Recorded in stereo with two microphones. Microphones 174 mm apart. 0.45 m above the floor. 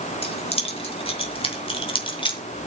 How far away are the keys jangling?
About 3 m.